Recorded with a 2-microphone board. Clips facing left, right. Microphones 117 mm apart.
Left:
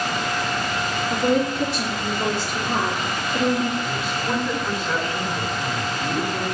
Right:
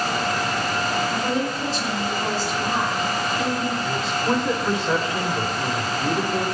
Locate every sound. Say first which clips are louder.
1.1 s a woman speaking: left 3 dB; 65° left (ahead or behind), 5 m
3.8 s a man speaking: right 3 dB; 25° right (ahead or behind), 1.5 m